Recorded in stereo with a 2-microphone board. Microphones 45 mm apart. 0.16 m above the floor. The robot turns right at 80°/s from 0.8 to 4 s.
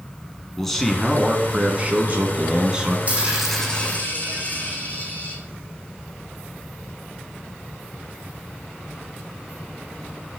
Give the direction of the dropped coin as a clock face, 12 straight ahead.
1 o'clock.